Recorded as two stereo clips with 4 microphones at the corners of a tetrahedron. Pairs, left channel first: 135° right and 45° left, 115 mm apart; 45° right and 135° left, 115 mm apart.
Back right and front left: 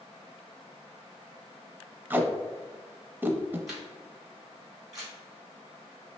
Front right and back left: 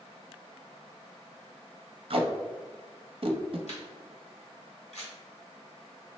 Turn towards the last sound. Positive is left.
turn(degrees=-40)